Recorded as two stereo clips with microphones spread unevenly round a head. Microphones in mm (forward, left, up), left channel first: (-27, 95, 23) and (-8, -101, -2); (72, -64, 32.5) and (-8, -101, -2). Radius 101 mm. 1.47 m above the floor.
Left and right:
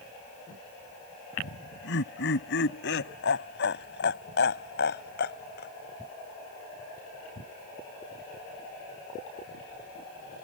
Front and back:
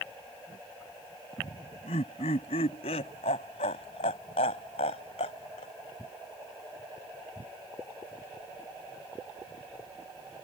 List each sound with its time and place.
1.4 s laughter: 60° left; by 5.7 s 55° left